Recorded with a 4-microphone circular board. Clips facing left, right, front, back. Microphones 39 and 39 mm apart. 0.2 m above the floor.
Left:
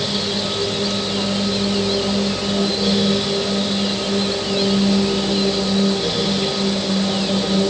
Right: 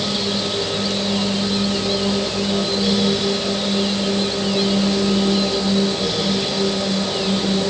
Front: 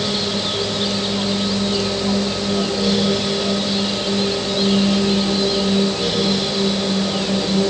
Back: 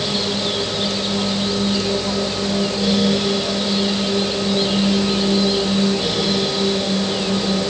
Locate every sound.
Only background noise.